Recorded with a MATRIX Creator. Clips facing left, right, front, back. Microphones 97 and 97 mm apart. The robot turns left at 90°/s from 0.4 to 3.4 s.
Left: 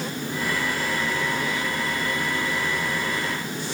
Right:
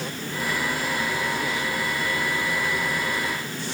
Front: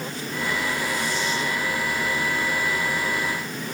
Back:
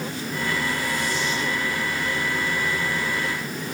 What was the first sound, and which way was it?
Only background noise.